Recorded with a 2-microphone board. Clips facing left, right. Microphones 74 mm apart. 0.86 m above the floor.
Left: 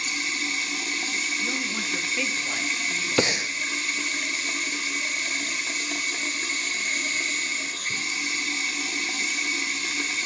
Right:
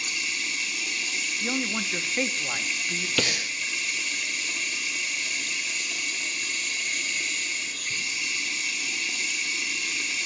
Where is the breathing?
30° left (ahead or behind), 0.6 m.